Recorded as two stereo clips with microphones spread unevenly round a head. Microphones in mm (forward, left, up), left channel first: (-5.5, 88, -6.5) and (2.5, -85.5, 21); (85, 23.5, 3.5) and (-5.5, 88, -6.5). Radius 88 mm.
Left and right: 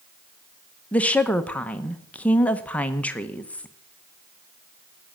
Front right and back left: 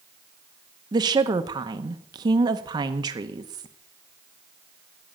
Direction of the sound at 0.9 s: 160° left.